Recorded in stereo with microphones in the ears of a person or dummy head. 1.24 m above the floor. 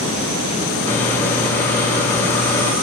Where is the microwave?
10° left (ahead or behind), 4 m.